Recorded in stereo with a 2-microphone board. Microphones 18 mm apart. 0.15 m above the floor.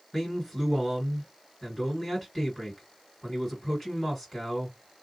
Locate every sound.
0.1 s a man speaking: 5° left (ahead or behind), 2 m